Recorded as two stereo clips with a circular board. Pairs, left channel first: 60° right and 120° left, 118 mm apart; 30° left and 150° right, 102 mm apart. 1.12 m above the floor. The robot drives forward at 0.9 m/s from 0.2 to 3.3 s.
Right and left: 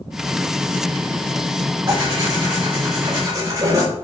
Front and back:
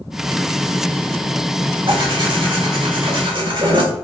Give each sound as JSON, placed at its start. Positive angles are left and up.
{"t": 1.9, "sound": "tearing paper", "azimuth_deg": 175, "distance_m": 3.5}